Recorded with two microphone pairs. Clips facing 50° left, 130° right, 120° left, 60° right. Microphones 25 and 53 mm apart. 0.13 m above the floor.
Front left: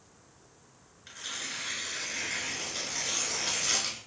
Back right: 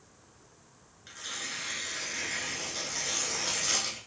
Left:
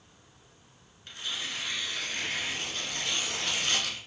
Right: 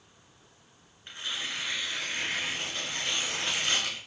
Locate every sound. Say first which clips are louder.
1.1 s tearing paper: even, right 1 dB; 20° right, 1.1 m